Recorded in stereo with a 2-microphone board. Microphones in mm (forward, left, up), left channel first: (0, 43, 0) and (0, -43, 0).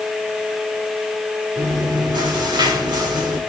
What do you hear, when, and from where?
1.6 s chewing: 75° right (ahead or behind), 3.5 m